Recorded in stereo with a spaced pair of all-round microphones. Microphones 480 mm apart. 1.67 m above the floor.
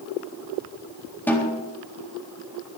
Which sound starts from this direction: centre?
A snare drum, at 1.3 s.